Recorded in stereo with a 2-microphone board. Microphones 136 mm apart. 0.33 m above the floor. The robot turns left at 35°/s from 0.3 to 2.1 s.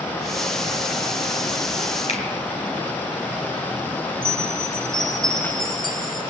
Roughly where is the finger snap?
Left.